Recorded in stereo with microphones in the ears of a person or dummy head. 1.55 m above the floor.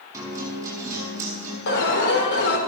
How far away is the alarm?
About 4.5 m.